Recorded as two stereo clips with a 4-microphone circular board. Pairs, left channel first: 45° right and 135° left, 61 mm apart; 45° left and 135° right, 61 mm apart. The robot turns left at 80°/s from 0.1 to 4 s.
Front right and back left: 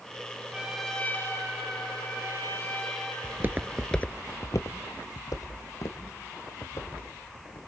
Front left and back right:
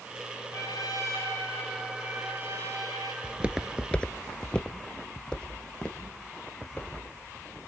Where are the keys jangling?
I don't hear keys jangling.